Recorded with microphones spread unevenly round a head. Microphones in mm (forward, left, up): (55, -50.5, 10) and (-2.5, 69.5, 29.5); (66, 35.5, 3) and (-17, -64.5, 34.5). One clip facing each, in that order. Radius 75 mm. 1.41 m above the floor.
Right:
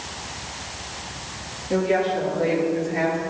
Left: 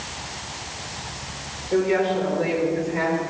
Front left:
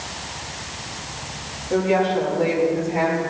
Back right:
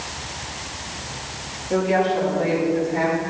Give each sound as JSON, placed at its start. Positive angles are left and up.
{"t": 1.7, "sound": "a woman speaking", "azimuth_deg": -50, "distance_m": 3.5}